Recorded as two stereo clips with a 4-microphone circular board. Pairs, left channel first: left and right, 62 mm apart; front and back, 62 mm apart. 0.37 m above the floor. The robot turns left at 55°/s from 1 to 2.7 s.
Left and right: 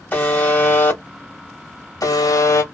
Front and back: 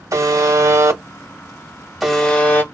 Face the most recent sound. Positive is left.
turn(degrees=55)